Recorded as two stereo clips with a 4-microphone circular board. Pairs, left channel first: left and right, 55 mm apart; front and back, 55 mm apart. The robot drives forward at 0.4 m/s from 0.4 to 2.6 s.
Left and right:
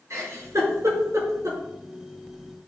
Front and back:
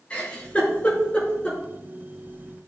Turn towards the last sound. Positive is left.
turn(degrees=-75)